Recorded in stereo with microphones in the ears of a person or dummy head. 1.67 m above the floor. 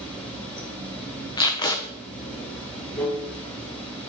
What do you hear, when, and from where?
0.0 s running water: 10° left (ahead or behind), 6 m
1.4 s tape being pulled: 20° left (ahead or behind), 1.1 m